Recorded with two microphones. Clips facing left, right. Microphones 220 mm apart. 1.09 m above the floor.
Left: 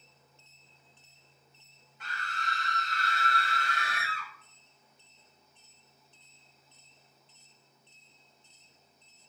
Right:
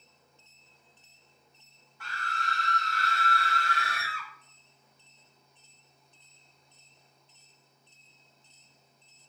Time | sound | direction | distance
2.0 | a scream | 20° left (ahead or behind) | 1.2 m